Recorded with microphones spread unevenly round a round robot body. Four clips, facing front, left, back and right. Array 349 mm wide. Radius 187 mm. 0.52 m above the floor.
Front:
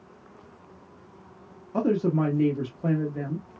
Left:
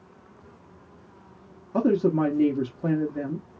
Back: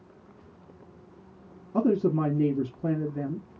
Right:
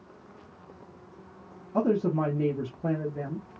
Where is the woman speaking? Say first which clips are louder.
Left 4 dB, even; 150° left, 0.9 m.